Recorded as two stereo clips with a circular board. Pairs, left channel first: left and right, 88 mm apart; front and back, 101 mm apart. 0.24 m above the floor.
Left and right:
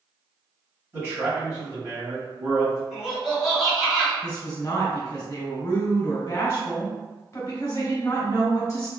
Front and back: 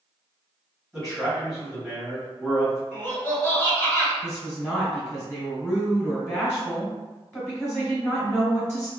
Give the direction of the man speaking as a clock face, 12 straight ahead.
3 o'clock.